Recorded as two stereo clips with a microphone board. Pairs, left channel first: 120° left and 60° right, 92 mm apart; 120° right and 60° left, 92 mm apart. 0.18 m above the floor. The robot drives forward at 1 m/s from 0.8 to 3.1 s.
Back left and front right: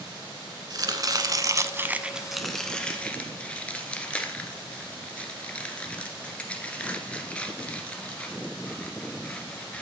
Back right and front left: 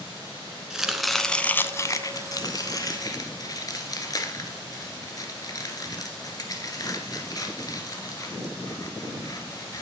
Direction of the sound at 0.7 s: 25° right.